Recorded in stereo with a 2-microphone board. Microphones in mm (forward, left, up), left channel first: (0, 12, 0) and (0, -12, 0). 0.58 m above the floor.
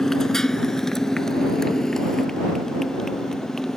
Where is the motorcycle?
20° left (ahead or behind).